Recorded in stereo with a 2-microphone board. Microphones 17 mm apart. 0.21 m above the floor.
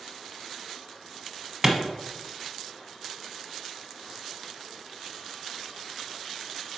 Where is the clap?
20° right (ahead or behind), 1.0 m.